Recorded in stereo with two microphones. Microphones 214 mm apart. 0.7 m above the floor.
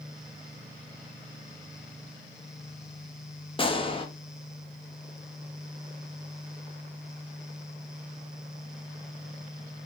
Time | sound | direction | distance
3.6 | a gunshot | 25° left (ahead or behind) | 0.7 m